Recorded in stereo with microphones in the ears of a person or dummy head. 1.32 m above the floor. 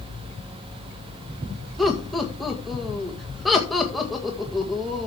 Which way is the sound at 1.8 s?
Centre (ahead or behind).